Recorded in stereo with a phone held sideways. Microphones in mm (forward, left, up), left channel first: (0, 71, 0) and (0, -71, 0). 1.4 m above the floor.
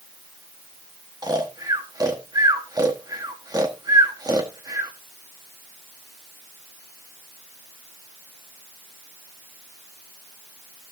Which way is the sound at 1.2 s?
25° right (ahead or behind).